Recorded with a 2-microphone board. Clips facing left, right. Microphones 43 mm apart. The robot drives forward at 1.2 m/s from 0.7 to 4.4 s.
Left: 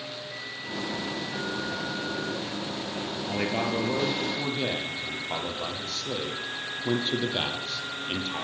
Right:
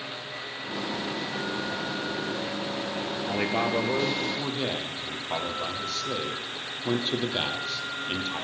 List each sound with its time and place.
3.3 s a man speaking: 5° right (ahead or behind), 2 m